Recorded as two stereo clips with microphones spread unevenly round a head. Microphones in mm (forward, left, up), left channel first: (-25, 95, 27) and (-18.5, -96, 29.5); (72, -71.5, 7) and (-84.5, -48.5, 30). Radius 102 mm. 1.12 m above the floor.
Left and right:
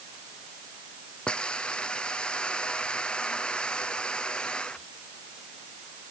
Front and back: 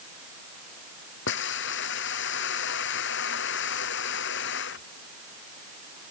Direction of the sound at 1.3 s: 5° left.